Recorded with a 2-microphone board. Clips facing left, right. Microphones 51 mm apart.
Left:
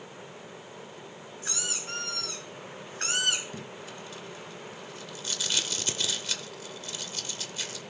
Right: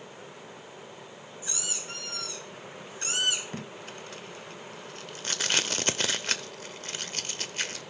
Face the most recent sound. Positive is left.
turn(degrees=-50)  # may be behind; listen again after turning